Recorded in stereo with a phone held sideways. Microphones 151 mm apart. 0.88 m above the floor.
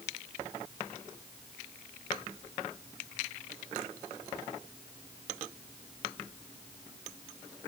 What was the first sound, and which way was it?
Only background noise.